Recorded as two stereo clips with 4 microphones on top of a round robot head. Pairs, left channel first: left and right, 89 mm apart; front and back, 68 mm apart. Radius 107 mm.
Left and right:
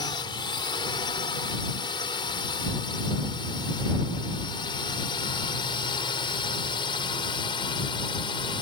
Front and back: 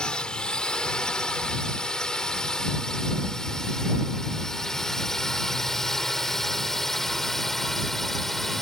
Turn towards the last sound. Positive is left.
turn(degrees=85)